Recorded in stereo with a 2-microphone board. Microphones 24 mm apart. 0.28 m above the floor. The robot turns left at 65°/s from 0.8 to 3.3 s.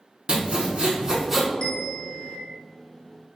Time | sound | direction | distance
0.3 | sawing | 50° right (ahead or behind) | 0.7 m
1.6 | a bell | 55° left | 0.8 m